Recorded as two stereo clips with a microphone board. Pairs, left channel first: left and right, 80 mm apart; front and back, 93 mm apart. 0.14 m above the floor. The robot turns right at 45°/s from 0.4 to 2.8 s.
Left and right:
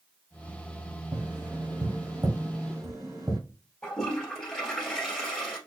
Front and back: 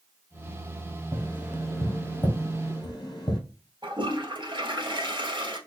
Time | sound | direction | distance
1.1 | tapping | 115° right | 2.5 m
3.8 | a toilet flushing | 170° left | 1.7 m